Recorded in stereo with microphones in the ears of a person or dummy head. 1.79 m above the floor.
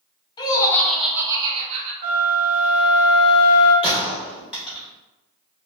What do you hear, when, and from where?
0.4 s laughter: 30° left (ahead or behind), 1.0 m; by 1.9 s 40° right (ahead or behind), 1.1 m
2.0 s a flute: 40° right (ahead or behind), 1.3 m
3.8 s a gunshot: centre (ahead or behind), 1.4 m